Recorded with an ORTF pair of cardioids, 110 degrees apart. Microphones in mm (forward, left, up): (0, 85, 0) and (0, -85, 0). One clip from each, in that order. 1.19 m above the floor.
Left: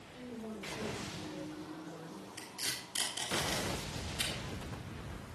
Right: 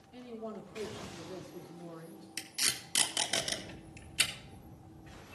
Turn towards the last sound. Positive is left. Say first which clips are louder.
# right 6 dB
turn(degrees=-70)